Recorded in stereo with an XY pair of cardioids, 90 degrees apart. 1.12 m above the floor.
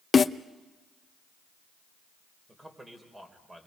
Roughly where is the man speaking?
Ahead.